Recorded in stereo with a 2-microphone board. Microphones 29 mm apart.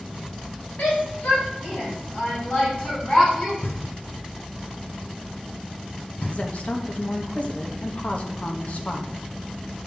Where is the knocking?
80° left, 2.5 m.